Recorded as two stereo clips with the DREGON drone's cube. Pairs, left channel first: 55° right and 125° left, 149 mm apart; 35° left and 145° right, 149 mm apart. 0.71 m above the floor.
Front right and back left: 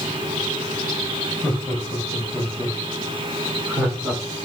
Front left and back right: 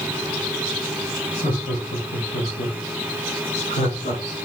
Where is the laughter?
35° left, 3.5 m; by 4.2 s 50° left, 2.5 m.